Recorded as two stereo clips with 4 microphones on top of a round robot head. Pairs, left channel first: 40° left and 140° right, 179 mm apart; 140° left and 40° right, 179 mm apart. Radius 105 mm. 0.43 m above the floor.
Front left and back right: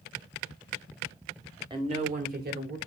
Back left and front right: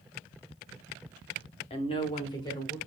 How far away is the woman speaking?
About 1.2 m.